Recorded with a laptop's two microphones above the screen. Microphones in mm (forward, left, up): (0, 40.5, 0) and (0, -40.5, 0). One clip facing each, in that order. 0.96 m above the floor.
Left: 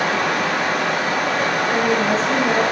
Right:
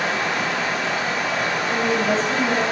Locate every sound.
0.0 s running water: 55° left (ahead or behind), 0.7 m
1.7 s a woman speaking: 45° left (ahead or behind), 1.1 m